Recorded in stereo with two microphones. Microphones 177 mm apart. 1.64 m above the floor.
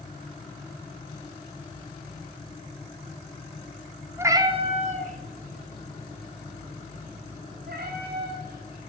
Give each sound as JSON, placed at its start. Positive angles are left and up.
{"t": 4.2, "sound": "a cat meowing", "side_deg": -15, "distance_m": 1.3}